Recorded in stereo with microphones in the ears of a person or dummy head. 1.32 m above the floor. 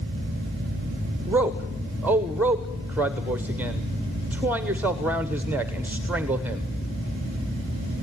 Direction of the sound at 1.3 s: 10° right (ahead or behind).